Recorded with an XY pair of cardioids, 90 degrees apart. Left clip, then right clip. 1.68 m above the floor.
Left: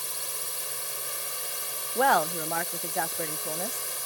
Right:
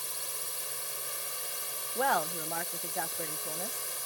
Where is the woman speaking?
50° left.